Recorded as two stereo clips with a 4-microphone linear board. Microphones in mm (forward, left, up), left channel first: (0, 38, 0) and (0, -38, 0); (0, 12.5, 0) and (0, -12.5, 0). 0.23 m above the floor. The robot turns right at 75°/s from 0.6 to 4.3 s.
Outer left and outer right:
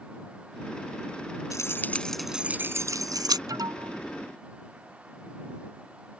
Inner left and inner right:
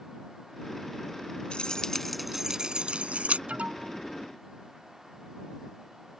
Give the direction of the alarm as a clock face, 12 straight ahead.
4 o'clock.